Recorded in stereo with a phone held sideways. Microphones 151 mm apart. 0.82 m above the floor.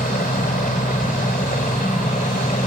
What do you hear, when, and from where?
0.0 s a helicopter: 65° left (ahead or behind)